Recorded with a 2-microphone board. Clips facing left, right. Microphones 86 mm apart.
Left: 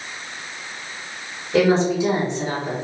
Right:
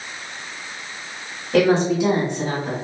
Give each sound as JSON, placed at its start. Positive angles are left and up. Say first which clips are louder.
{"t": 1.5, "sound": "a woman speaking", "louder": "even", "side_deg": -65, "distance_m": 1.9}